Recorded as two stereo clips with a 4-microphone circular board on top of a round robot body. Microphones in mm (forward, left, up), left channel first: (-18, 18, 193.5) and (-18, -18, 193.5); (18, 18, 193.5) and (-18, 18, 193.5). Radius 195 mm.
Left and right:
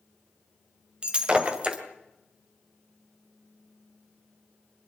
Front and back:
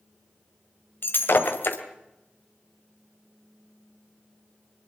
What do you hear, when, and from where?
1.0 s breaking glass: 25° right, 2 m